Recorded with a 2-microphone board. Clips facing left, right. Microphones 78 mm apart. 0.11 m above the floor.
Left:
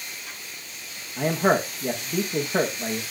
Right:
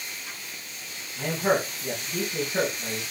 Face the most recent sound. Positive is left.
turn(degrees=80)